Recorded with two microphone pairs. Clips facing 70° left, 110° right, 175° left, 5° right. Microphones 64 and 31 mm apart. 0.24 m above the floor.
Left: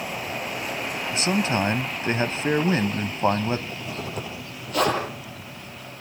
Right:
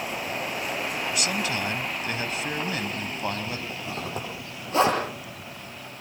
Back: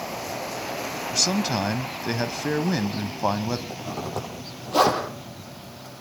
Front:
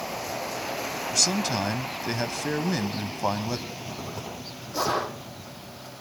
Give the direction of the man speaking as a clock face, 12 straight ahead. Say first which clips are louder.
Left 8 dB, back 2 dB; 9 o'clock.